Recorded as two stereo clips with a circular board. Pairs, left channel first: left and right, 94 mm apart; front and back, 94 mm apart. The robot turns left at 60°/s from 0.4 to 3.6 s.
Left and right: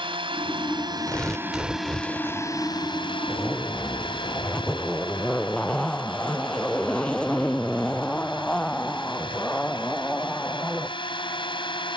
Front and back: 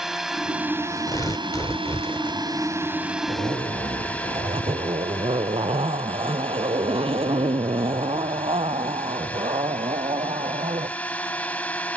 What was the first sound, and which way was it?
A drone, 95° right.